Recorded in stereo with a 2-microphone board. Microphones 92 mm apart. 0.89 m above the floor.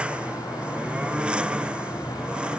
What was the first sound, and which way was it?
A lawn mower, 10° right (ahead or behind).